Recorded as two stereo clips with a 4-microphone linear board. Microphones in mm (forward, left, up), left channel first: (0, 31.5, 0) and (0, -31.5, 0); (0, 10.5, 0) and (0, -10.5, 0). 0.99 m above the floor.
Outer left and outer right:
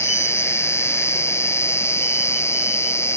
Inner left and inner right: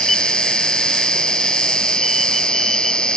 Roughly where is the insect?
Left.